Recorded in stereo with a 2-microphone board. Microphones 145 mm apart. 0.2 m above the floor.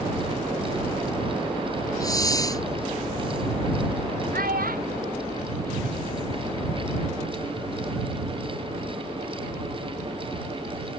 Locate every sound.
2.0 s a hiss: 25° left (ahead or behind)
4.3 s a child speaking: 75° right (ahead or behind)